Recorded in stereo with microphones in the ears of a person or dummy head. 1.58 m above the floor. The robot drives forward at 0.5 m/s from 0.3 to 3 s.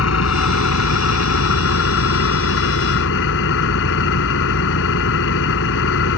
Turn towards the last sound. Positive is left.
turn(degrees=60)  # may be behind; listen again after turning